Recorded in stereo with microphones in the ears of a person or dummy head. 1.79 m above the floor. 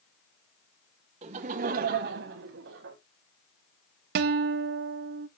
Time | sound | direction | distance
1.2 | laughter | 30° right (ahead or behind) | 1.2 m
4.2 | a guitar | 50° right (ahead or behind) | 0.6 m